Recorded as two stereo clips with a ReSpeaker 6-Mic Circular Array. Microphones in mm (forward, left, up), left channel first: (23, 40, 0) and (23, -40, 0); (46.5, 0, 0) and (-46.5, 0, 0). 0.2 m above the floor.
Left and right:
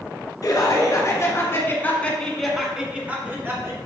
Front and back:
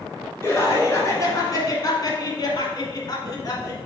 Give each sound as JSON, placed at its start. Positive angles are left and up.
{"t": 0.4, "sound": "laughter", "azimuth_deg": 60, "distance_m": 2.5}